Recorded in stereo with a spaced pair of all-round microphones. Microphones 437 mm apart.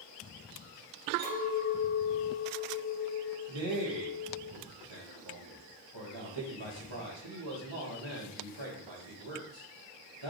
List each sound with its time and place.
1.2 s a clink: 20° right (ahead or behind), 1.6 m
3.5 s a man speaking: 85° right, 1.2 m